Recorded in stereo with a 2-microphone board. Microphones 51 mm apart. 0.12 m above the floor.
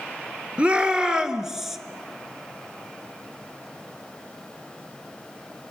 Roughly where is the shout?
Right.